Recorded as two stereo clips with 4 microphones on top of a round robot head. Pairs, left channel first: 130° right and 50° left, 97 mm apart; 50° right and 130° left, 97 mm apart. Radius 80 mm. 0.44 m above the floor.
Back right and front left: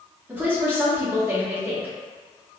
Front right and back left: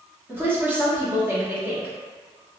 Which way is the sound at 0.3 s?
95° left.